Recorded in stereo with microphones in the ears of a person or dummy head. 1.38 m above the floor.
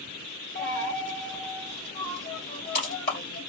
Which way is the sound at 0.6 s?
35° left (ahead or behind).